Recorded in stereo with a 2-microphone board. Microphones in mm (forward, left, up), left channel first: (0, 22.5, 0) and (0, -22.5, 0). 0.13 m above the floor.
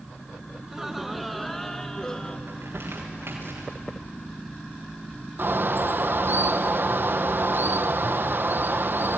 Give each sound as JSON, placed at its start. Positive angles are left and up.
{"t": 0.6, "sound": "laughter", "side_deg": -10, "distance_m": 1.3}
{"t": 2.5, "sound": "crumpling", "side_deg": -65, "distance_m": 5.0}
{"t": 5.4, "sound": "a bird", "side_deg": -60, "distance_m": 0.9}